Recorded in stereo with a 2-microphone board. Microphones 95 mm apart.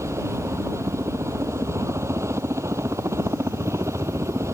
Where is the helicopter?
30° right (ahead or behind).